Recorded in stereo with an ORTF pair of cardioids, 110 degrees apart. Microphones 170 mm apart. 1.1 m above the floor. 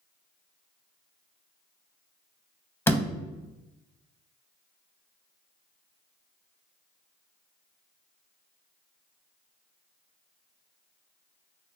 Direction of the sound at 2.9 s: 15° left.